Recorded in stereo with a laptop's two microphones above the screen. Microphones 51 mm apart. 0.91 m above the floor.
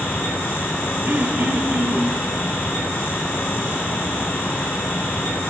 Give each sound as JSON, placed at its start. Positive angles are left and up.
{"t": 0.0, "sound": "a fan", "side_deg": 55, "distance_m": 2.5}
{"t": 1.1, "sound": "throat clearing", "side_deg": -40, "distance_m": 0.7}